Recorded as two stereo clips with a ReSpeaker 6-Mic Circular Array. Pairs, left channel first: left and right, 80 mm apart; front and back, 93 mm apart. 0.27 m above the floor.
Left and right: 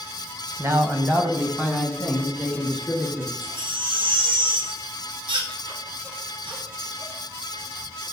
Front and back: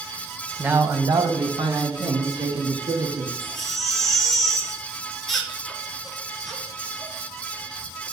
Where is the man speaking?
110° right, 1.2 m; by 3.3 s 175° left, 4.5 m.